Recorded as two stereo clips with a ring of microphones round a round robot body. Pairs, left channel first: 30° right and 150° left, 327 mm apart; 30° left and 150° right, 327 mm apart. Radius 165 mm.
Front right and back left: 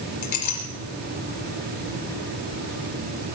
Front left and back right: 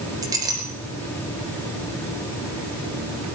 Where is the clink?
70° right, 3.5 m.